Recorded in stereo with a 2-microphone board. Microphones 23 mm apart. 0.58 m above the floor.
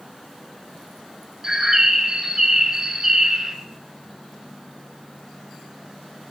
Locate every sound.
1.4 s a bird: 25° right (ahead or behind), 1.1 m